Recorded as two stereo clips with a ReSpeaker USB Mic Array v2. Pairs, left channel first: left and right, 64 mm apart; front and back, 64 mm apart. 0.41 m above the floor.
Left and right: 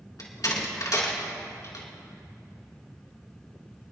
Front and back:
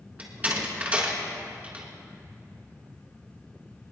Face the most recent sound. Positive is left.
turn(degrees=110)